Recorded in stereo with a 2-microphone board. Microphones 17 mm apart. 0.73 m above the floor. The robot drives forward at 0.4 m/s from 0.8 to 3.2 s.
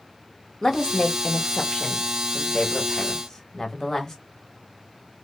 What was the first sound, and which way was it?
A woman speaking, 30° left (ahead or behind).